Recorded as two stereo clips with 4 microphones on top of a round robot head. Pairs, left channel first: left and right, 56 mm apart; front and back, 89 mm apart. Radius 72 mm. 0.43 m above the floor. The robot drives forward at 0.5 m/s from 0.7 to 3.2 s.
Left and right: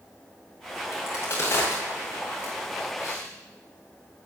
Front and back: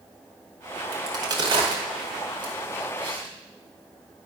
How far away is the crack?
About 2 m.